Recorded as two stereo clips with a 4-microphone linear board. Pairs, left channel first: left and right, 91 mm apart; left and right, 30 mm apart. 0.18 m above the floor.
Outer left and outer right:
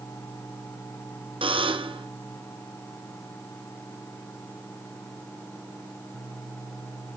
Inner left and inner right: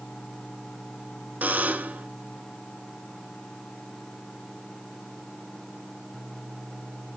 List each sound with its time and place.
1.4 s a buzzer: 75° right (ahead or behind), 1.5 m